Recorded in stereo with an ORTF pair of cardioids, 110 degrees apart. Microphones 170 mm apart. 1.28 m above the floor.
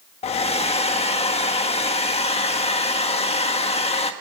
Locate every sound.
0.2 s a hair dryer: 35° left, 1.4 m